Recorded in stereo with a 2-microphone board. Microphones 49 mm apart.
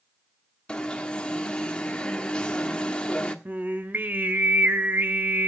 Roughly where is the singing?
Right.